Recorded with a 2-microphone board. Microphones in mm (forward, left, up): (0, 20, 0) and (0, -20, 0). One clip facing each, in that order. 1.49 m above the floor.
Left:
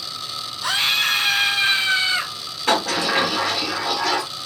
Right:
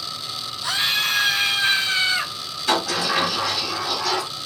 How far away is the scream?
About 1.4 m.